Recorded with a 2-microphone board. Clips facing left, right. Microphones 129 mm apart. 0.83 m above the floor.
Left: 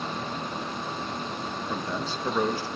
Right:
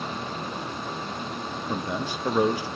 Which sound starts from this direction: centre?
A man speaking, at 1.7 s.